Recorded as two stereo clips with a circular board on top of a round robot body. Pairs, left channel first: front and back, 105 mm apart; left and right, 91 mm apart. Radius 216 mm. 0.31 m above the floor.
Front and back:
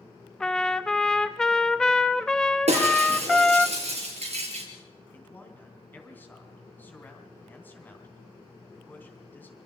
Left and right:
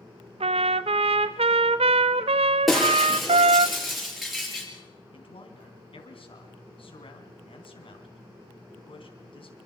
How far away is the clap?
No clap in this recording.